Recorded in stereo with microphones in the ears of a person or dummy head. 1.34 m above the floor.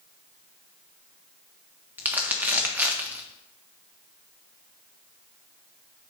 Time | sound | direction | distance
2.0 | crumpling | 5° right (ahead or behind) | 0.9 m